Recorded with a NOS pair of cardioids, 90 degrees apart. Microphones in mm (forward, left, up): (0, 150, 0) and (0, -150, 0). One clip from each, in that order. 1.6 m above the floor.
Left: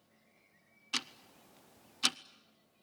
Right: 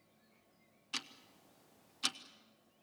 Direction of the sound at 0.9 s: 25° left.